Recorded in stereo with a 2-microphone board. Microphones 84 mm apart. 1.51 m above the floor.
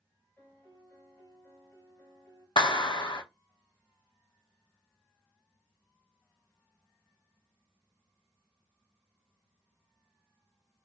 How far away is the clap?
About 0.6 m.